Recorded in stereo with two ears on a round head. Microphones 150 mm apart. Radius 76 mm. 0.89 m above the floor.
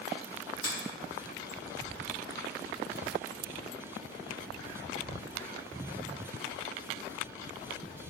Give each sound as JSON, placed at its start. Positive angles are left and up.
{"t": 0.6, "sound": "a finger snap", "side_deg": 25, "distance_m": 1.1}